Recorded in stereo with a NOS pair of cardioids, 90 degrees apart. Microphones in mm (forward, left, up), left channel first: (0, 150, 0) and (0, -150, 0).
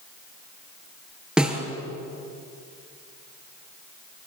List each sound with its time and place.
1.4 s a snare drum: straight ahead, 6 m